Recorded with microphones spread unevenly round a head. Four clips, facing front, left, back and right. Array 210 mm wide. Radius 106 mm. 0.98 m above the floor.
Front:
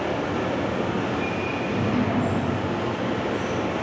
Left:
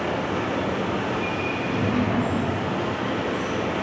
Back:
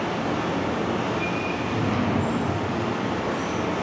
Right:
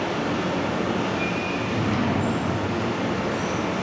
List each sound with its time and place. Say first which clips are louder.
0.0 s running water: even, even; 30° right, 1.1 m
1.5 s a drawer: left 2 dB, front 3 dB; 95° right, 1.3 m